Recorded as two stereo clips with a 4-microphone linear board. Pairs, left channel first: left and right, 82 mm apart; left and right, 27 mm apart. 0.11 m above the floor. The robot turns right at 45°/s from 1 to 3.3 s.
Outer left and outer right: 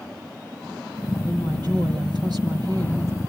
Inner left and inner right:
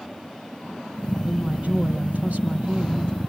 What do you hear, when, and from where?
1.2 s a woman speaking: 130° right, 3.5 m; by 3.2 s 40° right, 3.5 m